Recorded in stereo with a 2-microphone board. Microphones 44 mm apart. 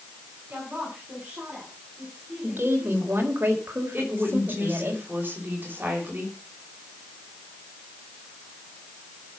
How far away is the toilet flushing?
I don't hear a toilet flushing.